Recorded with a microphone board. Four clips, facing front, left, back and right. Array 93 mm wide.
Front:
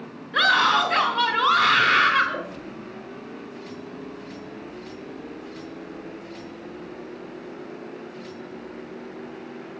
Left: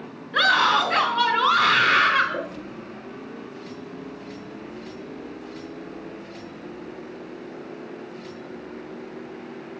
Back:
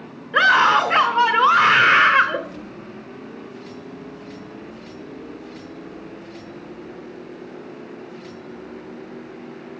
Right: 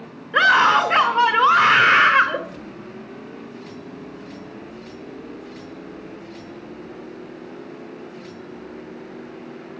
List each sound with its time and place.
0.3 s a scream: 135° right, 1.4 m